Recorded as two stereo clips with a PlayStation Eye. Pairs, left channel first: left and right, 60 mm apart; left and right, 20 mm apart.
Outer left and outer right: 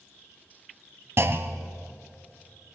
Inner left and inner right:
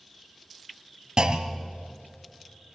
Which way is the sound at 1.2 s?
50° right (ahead or behind).